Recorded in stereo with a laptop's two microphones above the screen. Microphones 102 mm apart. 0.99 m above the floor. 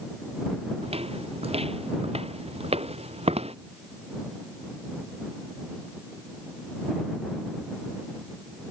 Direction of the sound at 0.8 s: 75° right (ahead or behind).